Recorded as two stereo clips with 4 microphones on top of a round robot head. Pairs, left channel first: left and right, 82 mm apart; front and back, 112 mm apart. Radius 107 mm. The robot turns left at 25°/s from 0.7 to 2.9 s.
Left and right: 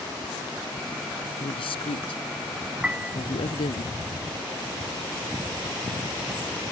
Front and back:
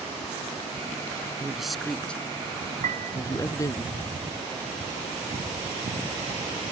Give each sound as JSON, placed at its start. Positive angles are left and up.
{"t": 1.4, "sound": "a man speaking", "azimuth_deg": 95}
{"t": 2.8, "sound": "a piano", "azimuth_deg": -165}